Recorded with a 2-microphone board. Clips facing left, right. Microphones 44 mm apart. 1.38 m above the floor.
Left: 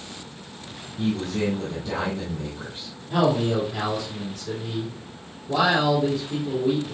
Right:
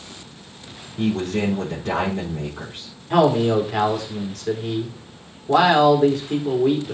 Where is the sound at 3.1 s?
80° right, 4 m.